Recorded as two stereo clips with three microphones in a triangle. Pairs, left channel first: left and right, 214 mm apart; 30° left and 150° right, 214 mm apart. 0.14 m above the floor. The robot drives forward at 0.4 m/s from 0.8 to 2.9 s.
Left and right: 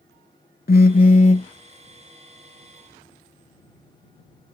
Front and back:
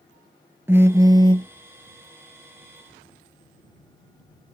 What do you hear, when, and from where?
0.7 s a phone buzzing: 135° left; by 1.5 s 150° left